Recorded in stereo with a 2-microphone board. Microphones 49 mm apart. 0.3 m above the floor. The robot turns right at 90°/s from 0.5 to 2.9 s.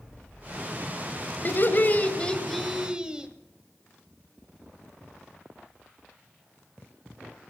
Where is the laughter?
80° left, 1.4 m; by 3.3 s 150° right, 1.4 m.